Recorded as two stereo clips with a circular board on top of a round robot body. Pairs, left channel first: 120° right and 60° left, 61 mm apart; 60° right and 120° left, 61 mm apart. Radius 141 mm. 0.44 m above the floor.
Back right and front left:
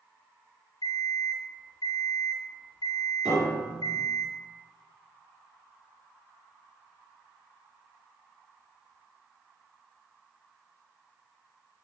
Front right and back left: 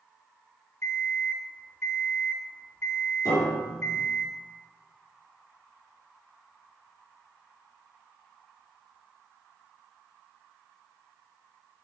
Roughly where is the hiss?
I don't hear a hiss.